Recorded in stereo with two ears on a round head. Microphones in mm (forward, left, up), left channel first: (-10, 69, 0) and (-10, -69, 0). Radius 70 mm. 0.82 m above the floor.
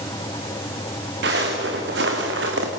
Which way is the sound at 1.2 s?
75° right (ahead or behind).